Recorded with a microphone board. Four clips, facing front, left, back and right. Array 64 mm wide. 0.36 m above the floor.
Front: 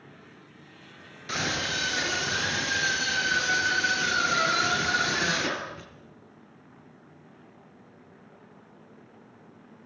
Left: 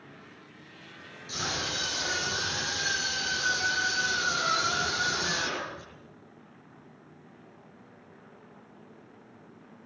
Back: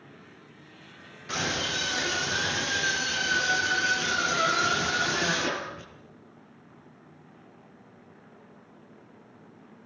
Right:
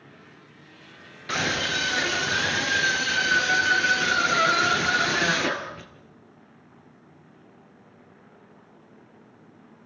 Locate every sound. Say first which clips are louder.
1.3 s a scream: right 8 dB, even; 80° right, 6 m